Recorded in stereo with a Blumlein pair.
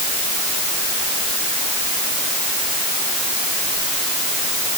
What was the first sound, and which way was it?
Only background noise.